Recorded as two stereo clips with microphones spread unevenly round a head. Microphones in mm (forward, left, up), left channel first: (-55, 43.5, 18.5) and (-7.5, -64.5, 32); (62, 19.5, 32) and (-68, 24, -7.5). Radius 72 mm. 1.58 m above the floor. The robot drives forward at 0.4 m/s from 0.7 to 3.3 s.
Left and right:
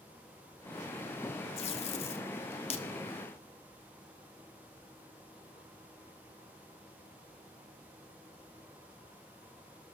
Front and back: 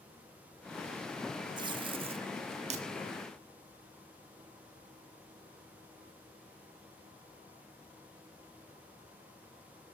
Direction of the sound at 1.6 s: 115° left.